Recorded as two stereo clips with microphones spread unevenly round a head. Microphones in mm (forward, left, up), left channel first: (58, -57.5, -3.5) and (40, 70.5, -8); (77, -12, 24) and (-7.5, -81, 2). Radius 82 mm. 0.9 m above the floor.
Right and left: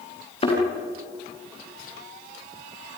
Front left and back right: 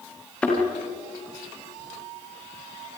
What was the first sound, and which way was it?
A thud, 40° right.